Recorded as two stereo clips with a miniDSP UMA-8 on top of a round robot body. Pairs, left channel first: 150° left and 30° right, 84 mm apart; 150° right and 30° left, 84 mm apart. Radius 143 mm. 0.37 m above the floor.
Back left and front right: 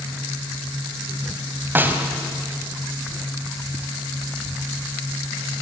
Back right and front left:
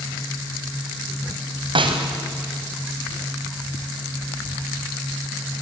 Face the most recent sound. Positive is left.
turn(degrees=35)